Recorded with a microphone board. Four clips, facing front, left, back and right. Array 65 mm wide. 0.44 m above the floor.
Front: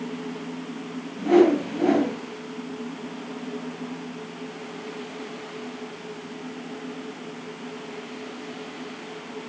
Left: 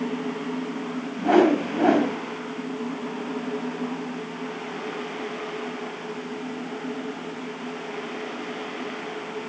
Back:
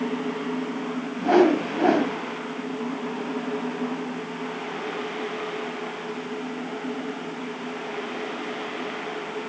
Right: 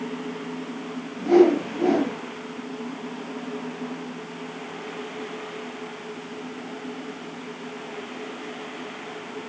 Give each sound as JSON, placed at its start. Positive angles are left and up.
{"t": 1.2, "sound": "a whoosh", "azimuth_deg": 130, "distance_m": 1.7}